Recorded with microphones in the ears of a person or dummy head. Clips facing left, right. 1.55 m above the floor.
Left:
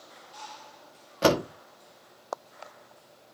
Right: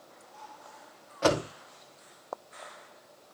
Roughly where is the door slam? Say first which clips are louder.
Left 3 dB; left.